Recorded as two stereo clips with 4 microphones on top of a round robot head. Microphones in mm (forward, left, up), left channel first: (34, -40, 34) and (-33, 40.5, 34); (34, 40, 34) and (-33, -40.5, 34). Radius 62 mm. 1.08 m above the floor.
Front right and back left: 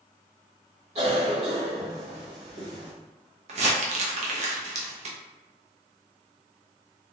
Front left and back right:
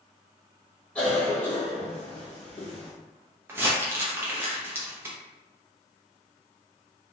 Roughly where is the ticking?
I don't hear ticking.